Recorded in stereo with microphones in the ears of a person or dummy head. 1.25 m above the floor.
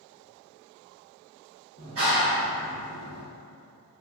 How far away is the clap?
About 1.3 m.